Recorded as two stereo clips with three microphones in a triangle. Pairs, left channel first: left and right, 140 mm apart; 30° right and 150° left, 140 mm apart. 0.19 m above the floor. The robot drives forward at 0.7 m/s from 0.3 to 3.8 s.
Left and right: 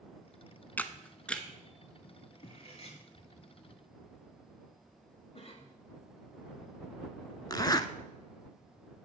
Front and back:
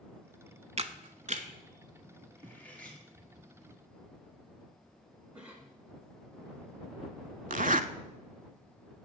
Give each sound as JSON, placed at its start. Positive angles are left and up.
{"t": 0.8, "sound": "a camera shutter", "azimuth_deg": 165, "distance_m": 0.5}
{"t": 2.4, "sound": "cutlery clinking", "azimuth_deg": 45, "distance_m": 2.0}
{"t": 5.3, "sound": "a cough", "azimuth_deg": 75, "distance_m": 2.0}
{"t": 7.5, "sound": "a zipper", "azimuth_deg": 145, "distance_m": 0.5}